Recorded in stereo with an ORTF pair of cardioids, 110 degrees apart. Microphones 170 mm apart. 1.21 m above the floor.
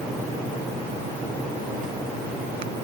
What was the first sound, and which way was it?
Only background noise.